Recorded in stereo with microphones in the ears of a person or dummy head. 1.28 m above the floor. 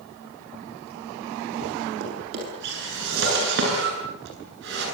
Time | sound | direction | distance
2.0 | a drawer | 65° right (ahead or behind) | 9.5 m